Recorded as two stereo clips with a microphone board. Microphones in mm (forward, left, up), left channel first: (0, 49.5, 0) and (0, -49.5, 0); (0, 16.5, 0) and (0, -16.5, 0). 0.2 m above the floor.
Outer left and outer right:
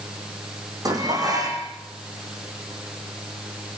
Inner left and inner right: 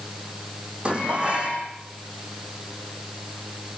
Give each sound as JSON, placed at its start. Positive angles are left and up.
{"t": 0.8, "sound": "dishes clattering", "side_deg": -40, "distance_m": 7.0}